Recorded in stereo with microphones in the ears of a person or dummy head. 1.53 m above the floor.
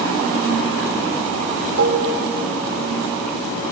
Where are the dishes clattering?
65° right (ahead or behind), 3 m.